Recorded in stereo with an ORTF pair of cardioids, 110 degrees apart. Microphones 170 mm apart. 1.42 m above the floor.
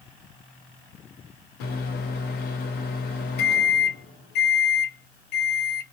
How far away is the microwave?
About 0.7 m.